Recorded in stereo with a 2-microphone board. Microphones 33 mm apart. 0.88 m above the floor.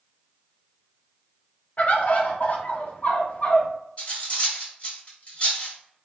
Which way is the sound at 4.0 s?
40° left (ahead or behind).